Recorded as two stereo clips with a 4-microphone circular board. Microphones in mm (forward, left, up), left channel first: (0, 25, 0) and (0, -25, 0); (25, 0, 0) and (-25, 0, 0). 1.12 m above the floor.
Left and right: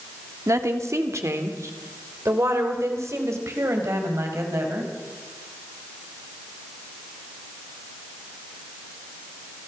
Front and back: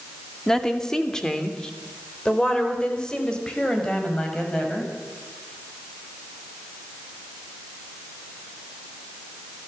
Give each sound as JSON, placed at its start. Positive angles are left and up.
{"t": 0.5, "sound": "a woman speaking", "azimuth_deg": -80, "distance_m": 1.9}